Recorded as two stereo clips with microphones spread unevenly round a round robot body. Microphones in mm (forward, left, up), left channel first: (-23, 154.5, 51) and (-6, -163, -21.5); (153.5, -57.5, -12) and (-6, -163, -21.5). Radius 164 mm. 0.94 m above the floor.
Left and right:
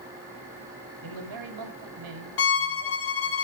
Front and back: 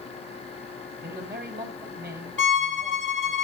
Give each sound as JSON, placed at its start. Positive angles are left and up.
{"t": 1.0, "sound": "a man speaking", "azimuth_deg": -110, "distance_m": 4.5}
{"t": 2.4, "sound": "a violin", "azimuth_deg": 120, "distance_m": 1.7}